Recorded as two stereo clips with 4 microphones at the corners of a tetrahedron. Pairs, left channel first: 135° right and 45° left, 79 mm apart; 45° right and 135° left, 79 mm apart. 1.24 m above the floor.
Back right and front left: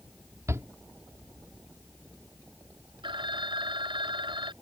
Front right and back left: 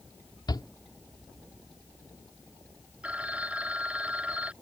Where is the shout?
10° right.